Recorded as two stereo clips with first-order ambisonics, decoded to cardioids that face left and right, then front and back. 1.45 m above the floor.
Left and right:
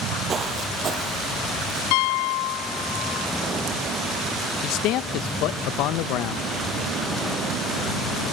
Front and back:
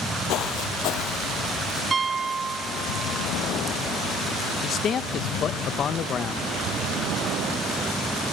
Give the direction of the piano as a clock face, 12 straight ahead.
9 o'clock.